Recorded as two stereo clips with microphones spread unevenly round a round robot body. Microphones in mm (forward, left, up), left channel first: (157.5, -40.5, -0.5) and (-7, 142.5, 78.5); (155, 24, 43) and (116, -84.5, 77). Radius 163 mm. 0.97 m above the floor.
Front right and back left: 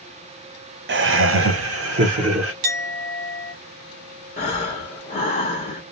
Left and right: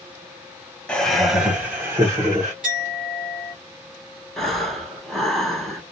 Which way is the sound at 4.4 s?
5° right.